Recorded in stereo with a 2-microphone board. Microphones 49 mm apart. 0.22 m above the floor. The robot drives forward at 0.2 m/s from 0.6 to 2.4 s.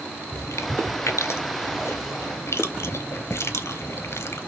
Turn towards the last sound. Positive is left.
turn(degrees=60)  # may be behind; listen again after turning